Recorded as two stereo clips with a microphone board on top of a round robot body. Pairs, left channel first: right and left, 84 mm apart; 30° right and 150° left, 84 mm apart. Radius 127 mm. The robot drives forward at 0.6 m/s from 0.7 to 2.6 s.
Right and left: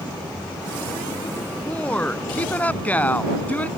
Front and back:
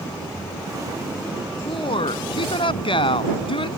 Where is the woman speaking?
15° right.